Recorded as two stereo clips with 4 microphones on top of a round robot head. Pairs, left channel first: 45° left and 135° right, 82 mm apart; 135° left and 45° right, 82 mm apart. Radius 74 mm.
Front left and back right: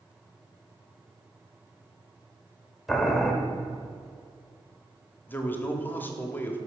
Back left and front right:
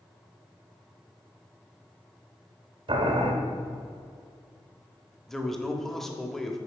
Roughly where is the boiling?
Ahead right.